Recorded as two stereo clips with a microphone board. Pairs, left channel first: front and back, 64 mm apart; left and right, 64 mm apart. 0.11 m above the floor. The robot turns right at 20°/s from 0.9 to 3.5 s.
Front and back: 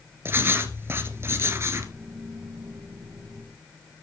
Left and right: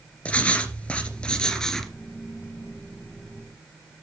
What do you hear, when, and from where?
0.2 s writing: 150° left, 2 m; by 1.9 s 170° left, 2 m